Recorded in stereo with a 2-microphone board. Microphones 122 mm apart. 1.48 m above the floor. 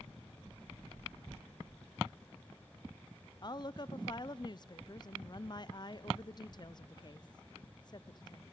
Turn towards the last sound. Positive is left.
turn(degrees=40)  # may be behind; listen again after turning